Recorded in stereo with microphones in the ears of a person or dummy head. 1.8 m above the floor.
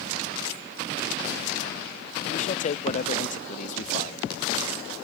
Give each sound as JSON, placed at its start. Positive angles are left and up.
{"t": 2.2, "sound": "a man speaking", "side_deg": 35}